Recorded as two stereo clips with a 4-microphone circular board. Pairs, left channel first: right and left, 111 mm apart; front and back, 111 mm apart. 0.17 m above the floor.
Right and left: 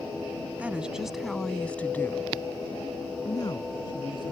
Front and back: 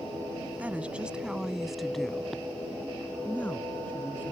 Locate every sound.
0.6 s a woman speaking: 135° left; by 4.3 s 70° right